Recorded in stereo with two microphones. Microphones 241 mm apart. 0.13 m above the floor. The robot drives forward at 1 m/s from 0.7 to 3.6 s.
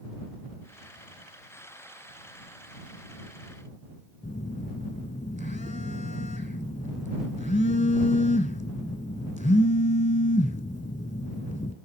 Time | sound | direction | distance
4.2 | a phone buzzing | 30° left (ahead or behind) | 0.8 m